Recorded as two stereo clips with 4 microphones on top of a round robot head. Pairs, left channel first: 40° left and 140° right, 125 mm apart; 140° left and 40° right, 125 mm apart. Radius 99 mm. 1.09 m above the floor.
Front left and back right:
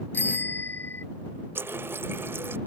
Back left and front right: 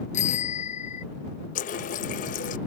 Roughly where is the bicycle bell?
Behind left.